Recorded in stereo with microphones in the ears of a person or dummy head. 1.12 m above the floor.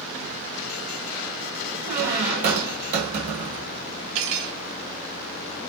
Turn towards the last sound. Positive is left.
turn(degrees=-80)